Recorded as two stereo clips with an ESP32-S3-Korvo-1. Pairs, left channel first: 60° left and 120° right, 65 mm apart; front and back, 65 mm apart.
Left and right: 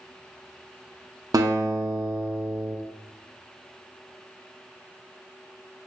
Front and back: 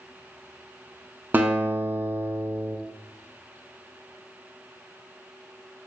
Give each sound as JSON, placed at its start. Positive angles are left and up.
{"t": 1.3, "sound": "a guitar", "azimuth_deg": -120, "distance_m": 0.5}